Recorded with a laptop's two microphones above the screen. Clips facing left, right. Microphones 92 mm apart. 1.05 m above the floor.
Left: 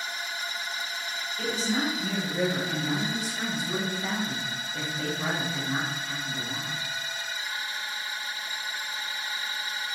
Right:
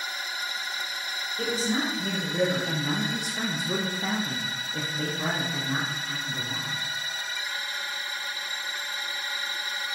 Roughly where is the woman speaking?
Right.